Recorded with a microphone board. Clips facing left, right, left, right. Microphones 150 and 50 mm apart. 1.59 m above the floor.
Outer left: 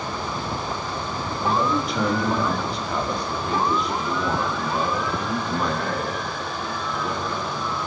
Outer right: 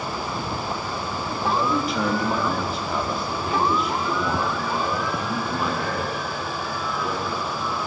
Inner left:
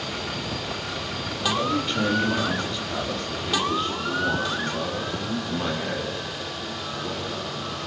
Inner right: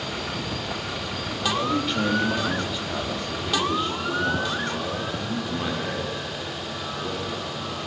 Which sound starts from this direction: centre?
A man speaking, at 1.4 s.